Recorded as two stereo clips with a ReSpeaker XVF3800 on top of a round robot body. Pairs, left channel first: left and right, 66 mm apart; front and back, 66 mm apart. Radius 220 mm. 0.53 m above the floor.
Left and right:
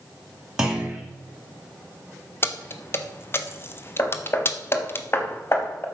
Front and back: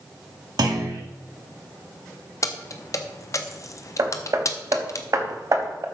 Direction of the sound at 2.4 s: 35° left.